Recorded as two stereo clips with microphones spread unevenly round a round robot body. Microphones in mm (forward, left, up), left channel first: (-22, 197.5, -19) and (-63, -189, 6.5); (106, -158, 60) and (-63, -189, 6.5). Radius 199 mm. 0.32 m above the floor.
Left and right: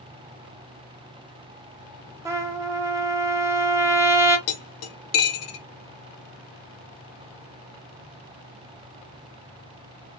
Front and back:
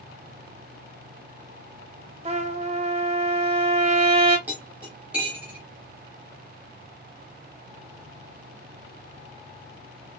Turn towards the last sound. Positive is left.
turn(degrees=125)